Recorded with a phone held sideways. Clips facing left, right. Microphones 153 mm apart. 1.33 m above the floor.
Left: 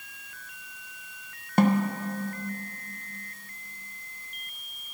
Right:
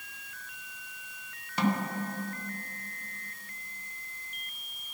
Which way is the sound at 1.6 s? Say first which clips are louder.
Left 7 dB; 50° left (ahead or behind).